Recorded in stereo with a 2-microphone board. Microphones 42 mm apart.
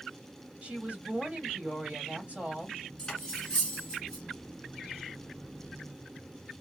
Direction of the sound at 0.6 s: 35° right (ahead or behind).